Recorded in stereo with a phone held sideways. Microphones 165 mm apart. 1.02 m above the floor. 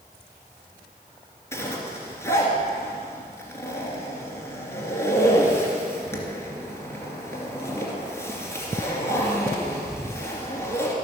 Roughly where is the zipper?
Centre.